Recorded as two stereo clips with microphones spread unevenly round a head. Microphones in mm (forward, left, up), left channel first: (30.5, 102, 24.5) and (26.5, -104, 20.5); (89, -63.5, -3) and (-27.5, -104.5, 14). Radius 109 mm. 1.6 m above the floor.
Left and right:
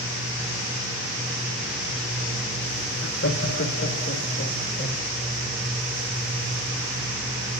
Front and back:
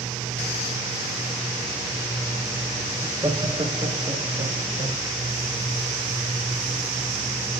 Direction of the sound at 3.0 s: 125° left.